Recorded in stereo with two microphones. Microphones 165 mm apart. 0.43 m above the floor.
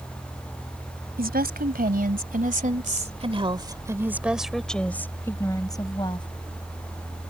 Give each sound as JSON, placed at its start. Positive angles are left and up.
{"t": 1.2, "sound": "a woman speaking", "side_deg": -70}